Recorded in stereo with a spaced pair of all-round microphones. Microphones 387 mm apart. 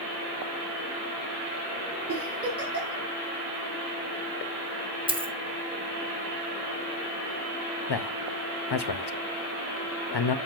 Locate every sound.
2.1 s a giggle: 35° right (ahead or behind), 3.5 m
5.1 s a dropped coin: 15° right (ahead or behind), 0.7 m
7.9 s a man speaking: 80° left, 0.6 m